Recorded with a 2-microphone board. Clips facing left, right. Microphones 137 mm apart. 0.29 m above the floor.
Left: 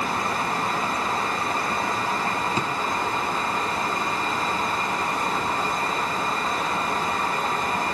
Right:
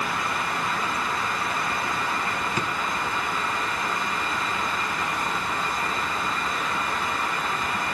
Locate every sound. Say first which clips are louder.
2.6 s a drawer: left 2 dB; 30° left (ahead or behind), 1.9 m